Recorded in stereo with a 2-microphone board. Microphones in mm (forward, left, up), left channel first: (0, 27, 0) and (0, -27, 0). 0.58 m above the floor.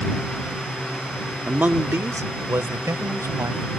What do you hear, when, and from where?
1.5 s a man speaking: 25° right (ahead or behind); by 3.8 s 75° right (ahead or behind)